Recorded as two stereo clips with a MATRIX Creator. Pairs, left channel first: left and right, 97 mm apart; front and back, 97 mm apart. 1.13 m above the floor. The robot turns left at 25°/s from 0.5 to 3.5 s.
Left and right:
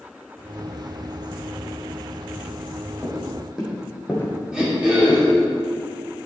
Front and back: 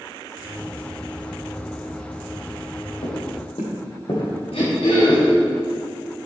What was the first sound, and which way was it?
Footsteps, 10° right.